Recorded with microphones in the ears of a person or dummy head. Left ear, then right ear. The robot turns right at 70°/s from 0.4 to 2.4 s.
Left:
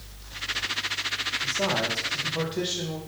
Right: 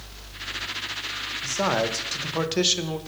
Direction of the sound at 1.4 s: 130° right.